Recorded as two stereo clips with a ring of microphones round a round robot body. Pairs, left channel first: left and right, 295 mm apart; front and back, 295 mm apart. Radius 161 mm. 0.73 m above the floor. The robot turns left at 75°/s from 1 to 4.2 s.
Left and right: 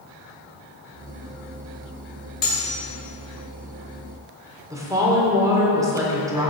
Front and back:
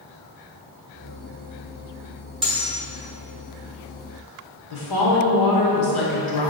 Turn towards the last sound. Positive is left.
turn(degrees=-10)